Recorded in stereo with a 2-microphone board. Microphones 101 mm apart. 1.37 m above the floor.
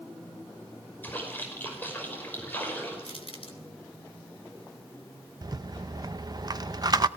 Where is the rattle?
40° right (ahead or behind), 0.6 m.